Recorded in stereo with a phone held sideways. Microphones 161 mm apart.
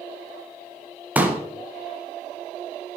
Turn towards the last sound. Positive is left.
turn(degrees=-10)  # may be behind; listen again after turning